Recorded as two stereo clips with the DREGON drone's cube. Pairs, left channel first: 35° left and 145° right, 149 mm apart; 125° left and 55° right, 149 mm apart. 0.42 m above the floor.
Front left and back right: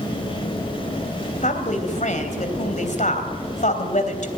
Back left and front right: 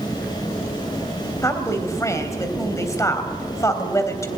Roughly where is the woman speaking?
Ahead left.